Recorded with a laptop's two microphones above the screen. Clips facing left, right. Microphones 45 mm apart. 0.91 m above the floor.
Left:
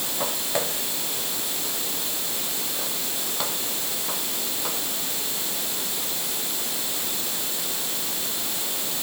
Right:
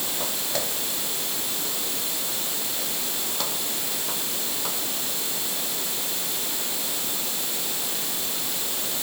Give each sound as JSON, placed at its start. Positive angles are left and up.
{"t": 0.2, "sound": "footsteps", "side_deg": 20}